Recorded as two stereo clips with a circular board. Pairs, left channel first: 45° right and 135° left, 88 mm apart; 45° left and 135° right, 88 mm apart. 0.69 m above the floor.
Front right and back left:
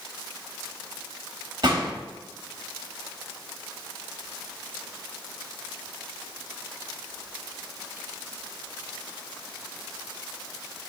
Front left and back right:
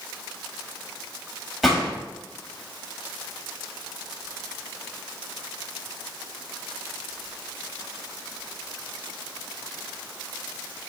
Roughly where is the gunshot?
Behind left.